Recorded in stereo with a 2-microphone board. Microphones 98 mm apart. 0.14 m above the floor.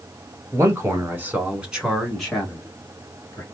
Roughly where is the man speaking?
Right.